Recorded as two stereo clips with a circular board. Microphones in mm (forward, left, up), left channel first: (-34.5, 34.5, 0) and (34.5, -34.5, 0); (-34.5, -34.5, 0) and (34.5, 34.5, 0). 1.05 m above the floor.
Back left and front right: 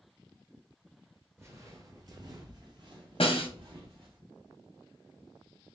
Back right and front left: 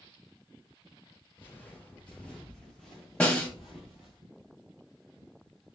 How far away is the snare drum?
About 0.9 m.